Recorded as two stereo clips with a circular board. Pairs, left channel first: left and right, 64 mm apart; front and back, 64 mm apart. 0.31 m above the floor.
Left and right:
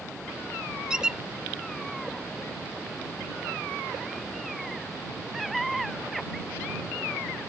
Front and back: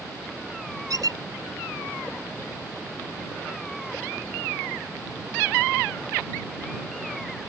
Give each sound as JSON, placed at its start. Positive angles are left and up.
{"t": 0.9, "sound": "a squeak", "azimuth_deg": -165}